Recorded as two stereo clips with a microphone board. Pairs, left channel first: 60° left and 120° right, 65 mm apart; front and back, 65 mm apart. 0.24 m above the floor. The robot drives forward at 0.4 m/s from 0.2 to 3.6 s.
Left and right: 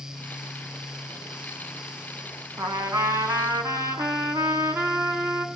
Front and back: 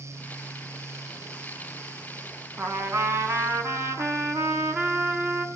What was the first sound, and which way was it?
A trumpet, 135° right.